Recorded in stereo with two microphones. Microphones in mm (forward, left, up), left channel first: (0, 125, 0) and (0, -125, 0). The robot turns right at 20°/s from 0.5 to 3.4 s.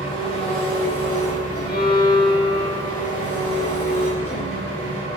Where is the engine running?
55° left, 1.9 m; by 5.2 s 115° left, 1.9 m.